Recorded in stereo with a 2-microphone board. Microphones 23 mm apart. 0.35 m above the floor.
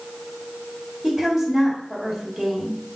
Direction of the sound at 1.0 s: 25° right (ahead or behind).